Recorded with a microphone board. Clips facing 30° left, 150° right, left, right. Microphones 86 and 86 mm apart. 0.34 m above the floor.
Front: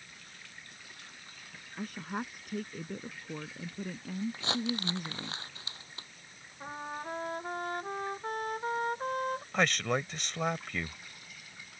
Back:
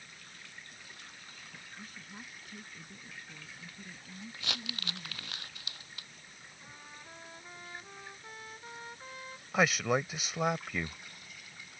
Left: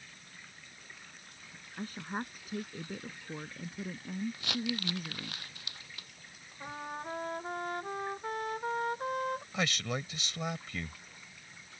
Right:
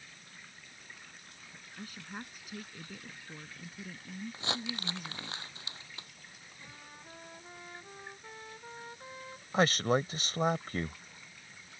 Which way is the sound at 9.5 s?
70° right.